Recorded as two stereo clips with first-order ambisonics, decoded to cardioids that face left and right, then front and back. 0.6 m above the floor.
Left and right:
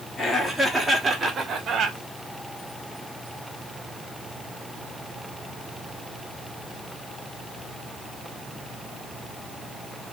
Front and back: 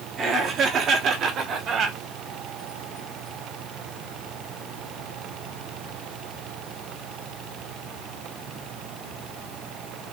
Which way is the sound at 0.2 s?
145° left.